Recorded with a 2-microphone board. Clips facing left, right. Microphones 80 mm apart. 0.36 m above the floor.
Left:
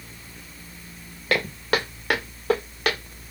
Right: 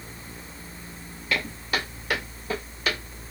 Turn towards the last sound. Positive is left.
turn(degrees=70)  # may be behind; listen again after turning